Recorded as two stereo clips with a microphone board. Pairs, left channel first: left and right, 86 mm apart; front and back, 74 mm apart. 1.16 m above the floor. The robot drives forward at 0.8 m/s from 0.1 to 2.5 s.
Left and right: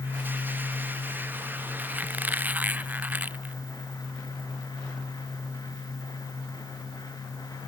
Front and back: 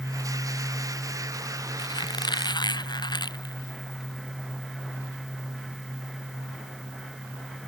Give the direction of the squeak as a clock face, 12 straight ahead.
1 o'clock.